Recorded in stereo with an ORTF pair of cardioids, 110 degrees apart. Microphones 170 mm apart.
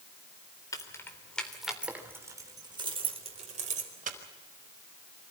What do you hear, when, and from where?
0.7 s keys jangling: 20° left, 3.5 m; by 4.2 s 45° right, 4.5 m